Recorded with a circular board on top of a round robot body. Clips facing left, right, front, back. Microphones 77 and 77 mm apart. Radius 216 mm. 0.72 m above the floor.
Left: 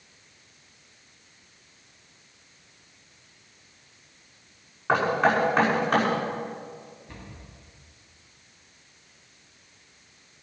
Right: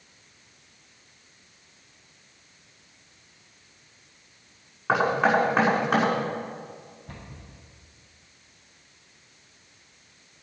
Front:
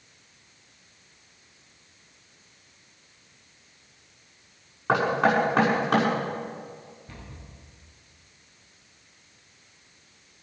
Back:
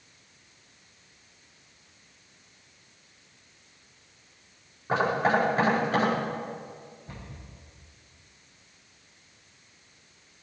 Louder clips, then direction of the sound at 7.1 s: Even, even; 115° right.